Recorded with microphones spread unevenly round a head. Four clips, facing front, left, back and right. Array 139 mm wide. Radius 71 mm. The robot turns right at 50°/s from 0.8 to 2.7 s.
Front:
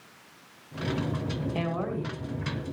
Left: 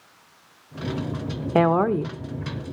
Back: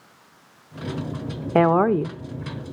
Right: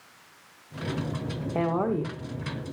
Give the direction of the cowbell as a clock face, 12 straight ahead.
No cowbell in this recording.